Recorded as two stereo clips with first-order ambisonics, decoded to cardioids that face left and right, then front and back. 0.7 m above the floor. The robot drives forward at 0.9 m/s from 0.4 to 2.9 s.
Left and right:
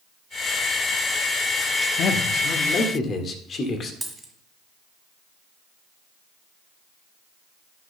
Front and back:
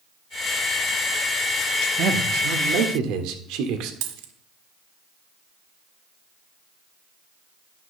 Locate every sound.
2.0 s a man speaking: 135° left, 1.2 m; by 3.9 s 155° left, 1.8 m
4.0 s a dropped coin: 175° right, 1.5 m